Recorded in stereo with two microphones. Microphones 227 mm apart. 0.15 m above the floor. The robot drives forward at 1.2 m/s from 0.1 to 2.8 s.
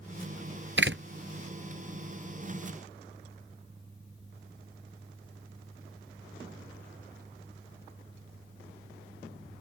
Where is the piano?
I don't hear a piano.